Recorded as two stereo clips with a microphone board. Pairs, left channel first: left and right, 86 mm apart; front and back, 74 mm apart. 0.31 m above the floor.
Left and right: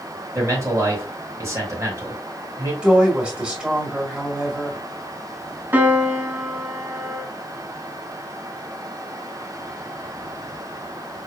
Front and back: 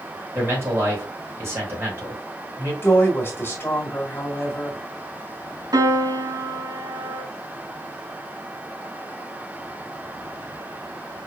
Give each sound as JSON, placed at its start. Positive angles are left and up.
{"t": 0.3, "sound": "a man speaking", "azimuth_deg": -135, "distance_m": 2.5}
{"t": 2.8, "sound": "a woman speaking", "azimuth_deg": -20, "distance_m": 1.7}
{"t": 5.7, "sound": "a piano", "azimuth_deg": -155, "distance_m": 1.0}